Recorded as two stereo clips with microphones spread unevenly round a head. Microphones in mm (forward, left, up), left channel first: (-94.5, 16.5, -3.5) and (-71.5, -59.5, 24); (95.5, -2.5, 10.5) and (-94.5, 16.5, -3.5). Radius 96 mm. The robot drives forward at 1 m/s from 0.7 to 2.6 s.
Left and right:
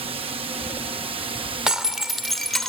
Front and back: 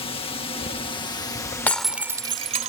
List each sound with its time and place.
0.0 s a drone: 70° right; by 2.7 s 100° right
1.7 s breaking glass: 70° right; by 2.7 s 145° right